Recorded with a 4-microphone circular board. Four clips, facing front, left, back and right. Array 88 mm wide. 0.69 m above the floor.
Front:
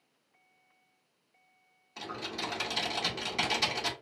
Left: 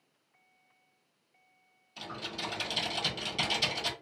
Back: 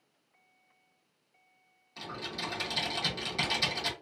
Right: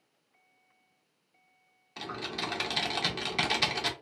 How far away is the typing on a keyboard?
About 1.0 m.